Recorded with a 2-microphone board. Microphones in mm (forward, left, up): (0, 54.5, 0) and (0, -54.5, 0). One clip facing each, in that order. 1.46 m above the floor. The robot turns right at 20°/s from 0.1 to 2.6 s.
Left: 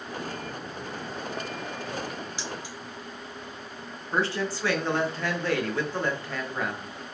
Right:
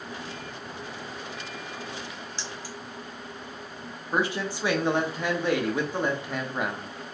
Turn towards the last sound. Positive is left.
turn(degrees=-15)  # may be behind; listen again after turning